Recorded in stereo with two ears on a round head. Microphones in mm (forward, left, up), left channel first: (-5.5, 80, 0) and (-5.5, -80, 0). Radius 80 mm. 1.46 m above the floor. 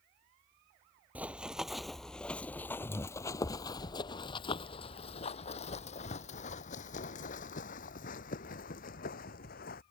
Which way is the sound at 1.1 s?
10° right (ahead or behind).